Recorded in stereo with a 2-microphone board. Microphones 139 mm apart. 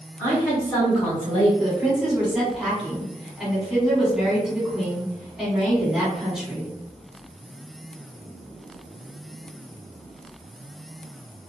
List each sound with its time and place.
0.2 s a woman speaking: 5° left (ahead or behind), 1.8 m; by 1.5 s 40° left (ahead or behind), 1.6 m
1.6 s a woman speaking: 5° right (ahead or behind), 1.8 m